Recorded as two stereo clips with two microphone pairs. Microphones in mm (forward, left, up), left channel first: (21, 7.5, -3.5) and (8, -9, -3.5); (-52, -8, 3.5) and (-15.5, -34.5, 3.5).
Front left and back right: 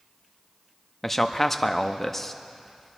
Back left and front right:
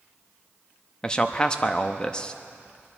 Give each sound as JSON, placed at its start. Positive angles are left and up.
{"t": 1.0, "sound": "a man speaking", "azimuth_deg": 110, "distance_m": 0.7}